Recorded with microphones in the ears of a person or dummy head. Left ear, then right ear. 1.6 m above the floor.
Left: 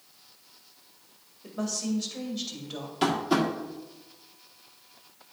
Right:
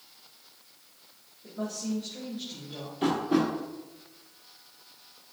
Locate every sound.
1.4 s a woman speaking: 75° left (ahead or behind), 2.5 m
3.0 s tapping: 60° left (ahead or behind), 1.6 m